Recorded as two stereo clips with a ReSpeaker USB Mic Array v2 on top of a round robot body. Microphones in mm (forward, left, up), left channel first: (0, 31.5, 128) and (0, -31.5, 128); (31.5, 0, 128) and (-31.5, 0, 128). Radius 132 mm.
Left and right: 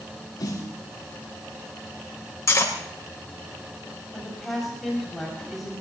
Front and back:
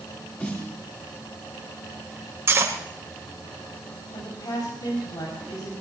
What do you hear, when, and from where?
0.4 s a snare drum: 65° left, 7 m
2.5 s cutlery clinking: 130° left, 2.5 m
4.1 s a woman speaking: straight ahead, 7 m